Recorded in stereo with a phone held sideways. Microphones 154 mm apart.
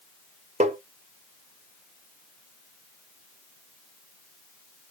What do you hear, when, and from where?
0.6 s tapping: 50° right (ahead or behind), 0.7 m